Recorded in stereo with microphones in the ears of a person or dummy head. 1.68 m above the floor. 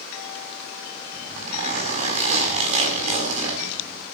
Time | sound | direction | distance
1.1 | a zipper | 35° right (ahead or behind) | 7 m